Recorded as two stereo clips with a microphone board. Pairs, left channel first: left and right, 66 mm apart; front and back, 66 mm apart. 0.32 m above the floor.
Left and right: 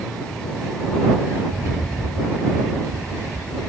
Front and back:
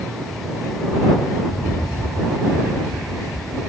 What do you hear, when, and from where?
1.4 s a rattle: 40° right